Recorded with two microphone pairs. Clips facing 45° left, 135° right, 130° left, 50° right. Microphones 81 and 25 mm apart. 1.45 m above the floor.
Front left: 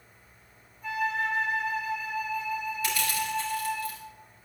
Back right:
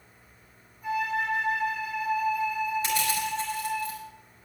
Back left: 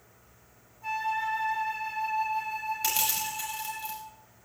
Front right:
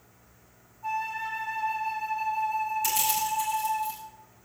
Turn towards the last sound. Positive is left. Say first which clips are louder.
# back right 2 dB, front right 3 dB
turn(degrees=160)